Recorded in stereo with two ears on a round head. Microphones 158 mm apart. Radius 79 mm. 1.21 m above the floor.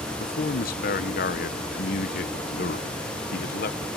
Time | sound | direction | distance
0.2 | a man speaking | 55° left (ahead or behind) | ?